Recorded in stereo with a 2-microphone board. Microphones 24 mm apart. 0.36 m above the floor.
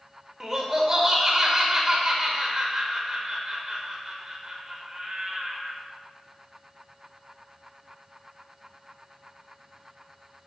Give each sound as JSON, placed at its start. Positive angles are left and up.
{"t": 0.4, "sound": "laughter", "side_deg": -20, "distance_m": 0.9}